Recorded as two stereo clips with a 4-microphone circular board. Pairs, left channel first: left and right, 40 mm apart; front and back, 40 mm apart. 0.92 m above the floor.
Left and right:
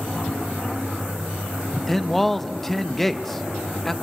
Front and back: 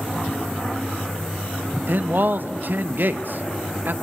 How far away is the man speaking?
About 0.9 m.